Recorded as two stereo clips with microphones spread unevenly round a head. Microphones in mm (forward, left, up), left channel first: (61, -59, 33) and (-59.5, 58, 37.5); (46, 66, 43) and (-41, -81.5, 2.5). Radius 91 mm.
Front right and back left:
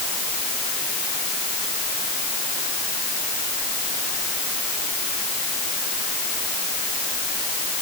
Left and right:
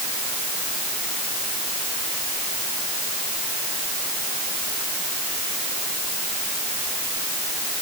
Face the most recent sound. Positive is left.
No sound to turn to.